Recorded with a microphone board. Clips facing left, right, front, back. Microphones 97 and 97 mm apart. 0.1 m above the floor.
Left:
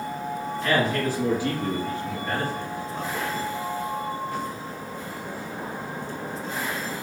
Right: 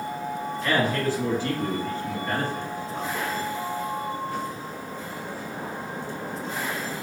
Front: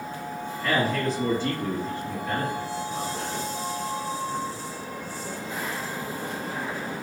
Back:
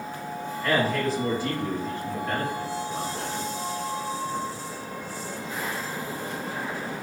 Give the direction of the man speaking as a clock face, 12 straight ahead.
9 o'clock.